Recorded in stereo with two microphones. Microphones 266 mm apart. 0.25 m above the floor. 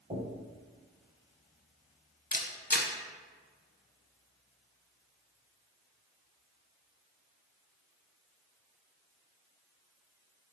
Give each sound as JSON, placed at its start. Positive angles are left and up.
{"t": 0.1, "sound": "knocking", "side_deg": -30, "distance_m": 1.5}
{"t": 2.3, "sound": "a camera shutter", "side_deg": 35, "distance_m": 0.7}